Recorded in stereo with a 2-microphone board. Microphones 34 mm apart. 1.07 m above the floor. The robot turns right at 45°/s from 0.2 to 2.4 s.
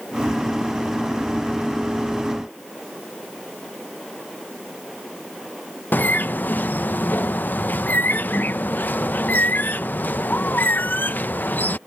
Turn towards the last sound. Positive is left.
turn(degrees=65)  # may be behind; listen again after turning